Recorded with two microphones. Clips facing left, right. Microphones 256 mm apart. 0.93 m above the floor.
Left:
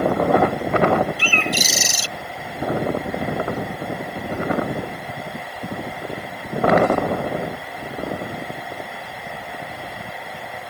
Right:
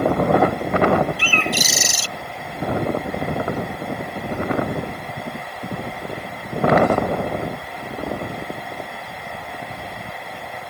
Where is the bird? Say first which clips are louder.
Even; 55° right (ahead or behind).